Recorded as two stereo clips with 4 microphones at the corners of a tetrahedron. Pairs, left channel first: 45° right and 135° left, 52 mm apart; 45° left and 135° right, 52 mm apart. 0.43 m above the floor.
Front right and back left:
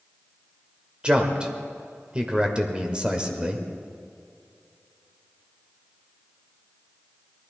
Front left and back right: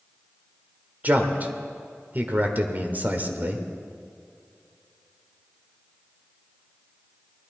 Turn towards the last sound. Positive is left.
turn(degrees=-165)